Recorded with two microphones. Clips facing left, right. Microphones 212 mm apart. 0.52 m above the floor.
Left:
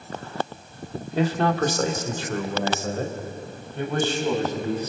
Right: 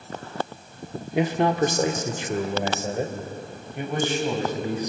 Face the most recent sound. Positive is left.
turn(degrees=-15)  # may be behind; listen again after turning